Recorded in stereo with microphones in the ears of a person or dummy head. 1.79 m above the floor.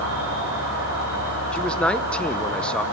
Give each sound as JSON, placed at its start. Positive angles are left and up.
{"t": 0.0, "sound": "an insect", "side_deg": -60, "distance_m": 4.5}
{"t": 1.5, "sound": "a man speaking", "side_deg": 0, "distance_m": 0.6}